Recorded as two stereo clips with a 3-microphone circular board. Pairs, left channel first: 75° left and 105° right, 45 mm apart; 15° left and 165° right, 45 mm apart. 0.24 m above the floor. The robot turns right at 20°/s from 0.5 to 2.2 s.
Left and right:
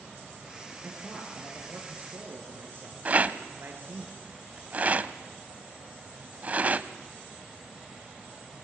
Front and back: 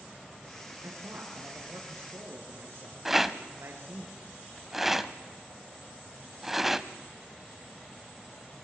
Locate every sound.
0.8 s a man speaking: 165° right, 4.5 m; by 4.0 s 140° right, 4.5 m
3.0 s a rattle: 85° right, 0.8 m